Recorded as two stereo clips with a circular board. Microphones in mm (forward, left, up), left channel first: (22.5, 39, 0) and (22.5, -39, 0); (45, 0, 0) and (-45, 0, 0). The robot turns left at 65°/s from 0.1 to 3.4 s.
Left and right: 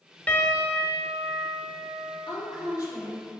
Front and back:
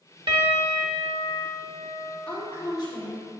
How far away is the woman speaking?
About 1.7 m.